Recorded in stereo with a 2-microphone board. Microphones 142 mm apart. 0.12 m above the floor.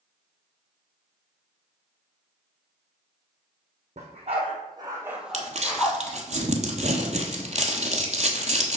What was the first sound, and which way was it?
A dog barking, 50° right (ahead or behind).